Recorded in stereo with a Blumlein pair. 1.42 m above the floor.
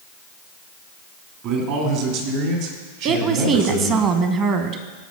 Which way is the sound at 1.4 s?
45° right.